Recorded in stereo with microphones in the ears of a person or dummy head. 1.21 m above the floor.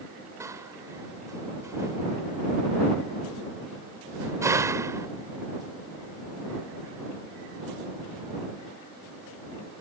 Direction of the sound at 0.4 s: 10° right (ahead or behind).